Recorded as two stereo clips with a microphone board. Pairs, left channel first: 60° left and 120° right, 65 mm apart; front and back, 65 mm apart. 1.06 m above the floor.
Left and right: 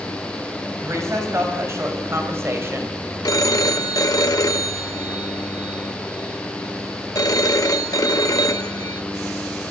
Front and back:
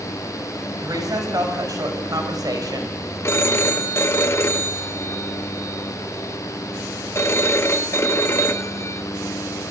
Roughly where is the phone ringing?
Ahead left.